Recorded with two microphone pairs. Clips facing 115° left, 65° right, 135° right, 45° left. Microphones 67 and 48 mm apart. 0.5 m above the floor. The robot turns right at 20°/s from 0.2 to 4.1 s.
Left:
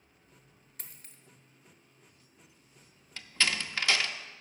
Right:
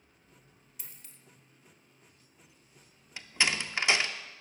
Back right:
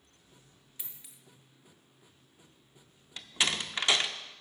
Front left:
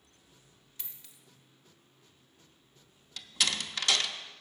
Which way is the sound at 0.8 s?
150° left.